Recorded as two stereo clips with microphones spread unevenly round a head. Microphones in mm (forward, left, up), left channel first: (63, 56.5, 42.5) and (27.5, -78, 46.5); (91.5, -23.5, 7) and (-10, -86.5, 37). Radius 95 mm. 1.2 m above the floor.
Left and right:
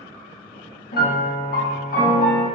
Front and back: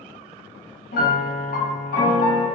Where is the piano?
60° left, 1.3 m.